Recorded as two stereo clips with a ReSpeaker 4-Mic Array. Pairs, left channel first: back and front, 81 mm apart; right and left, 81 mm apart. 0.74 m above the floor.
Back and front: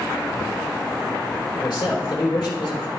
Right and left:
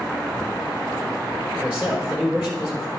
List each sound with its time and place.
1.6 s a man speaking: 155° left, 3 m